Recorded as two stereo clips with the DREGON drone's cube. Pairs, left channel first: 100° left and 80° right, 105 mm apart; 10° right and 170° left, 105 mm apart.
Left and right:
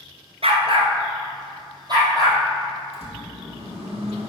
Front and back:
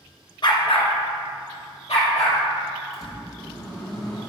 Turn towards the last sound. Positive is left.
turn(degrees=-65)